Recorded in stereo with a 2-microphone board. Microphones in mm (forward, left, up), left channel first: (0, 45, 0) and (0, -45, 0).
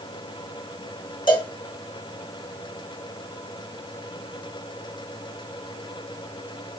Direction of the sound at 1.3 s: 60° left (ahead or behind).